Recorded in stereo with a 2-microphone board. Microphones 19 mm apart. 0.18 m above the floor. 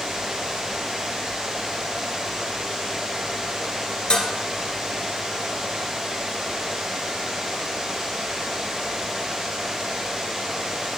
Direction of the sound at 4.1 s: 55° left (ahead or behind).